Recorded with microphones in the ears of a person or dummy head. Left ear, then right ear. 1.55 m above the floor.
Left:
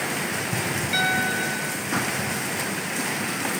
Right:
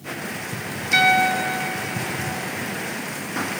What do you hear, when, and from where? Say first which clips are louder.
0.9 s a piano: right 7 dB; 30° right (ahead or behind), 0.6 m